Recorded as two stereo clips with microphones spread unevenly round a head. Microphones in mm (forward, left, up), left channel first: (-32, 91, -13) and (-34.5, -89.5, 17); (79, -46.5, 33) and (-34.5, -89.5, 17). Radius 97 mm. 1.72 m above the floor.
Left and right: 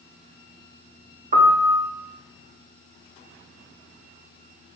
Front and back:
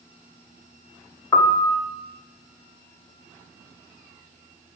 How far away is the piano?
About 0.7 m.